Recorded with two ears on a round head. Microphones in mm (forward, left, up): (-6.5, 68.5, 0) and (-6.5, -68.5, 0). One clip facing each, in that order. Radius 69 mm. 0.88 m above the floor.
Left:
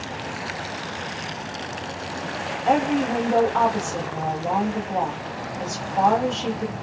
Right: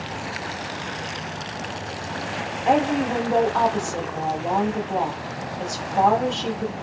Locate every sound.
2.6 s a woman speaking: centre (ahead or behind), 1.5 m